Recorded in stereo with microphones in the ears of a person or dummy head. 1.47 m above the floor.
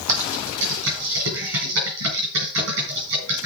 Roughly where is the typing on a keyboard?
Right.